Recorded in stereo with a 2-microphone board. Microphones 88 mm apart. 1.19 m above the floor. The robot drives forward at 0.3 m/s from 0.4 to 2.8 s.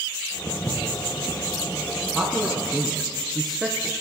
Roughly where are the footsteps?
Left.